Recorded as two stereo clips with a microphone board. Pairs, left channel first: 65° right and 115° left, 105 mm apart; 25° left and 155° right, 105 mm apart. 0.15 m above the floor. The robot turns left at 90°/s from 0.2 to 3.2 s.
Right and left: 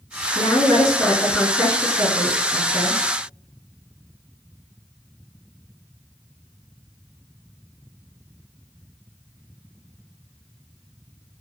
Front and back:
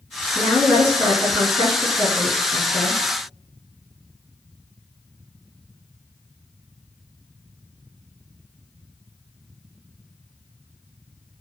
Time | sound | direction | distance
0.3 | a woman speaking | 80° right | 1.5 m